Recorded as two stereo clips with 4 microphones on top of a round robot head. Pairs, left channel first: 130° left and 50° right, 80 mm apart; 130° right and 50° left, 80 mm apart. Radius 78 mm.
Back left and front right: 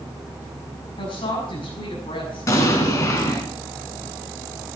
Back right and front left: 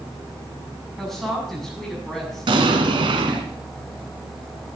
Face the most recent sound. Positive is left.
turn(degrees=80)